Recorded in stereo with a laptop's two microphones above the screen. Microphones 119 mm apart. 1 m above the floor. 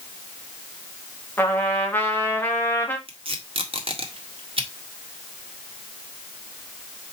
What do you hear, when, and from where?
1.4 s a trumpet: 15° left (ahead or behind), 1.8 m
3.1 s tape being pulled: 50° right (ahead or behind), 1.6 m